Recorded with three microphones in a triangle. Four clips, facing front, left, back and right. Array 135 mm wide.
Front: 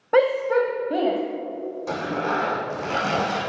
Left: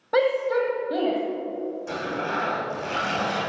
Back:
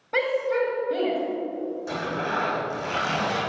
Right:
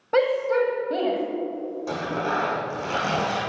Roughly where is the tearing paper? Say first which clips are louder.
Right 5 dB, front 6 dB; ahead right.